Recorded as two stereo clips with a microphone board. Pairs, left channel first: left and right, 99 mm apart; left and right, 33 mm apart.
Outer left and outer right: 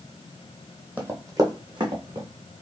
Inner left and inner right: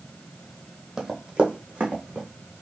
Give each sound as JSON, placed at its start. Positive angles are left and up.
{"t": 1.0, "sound": "running footsteps", "side_deg": -15, "distance_m": 0.9}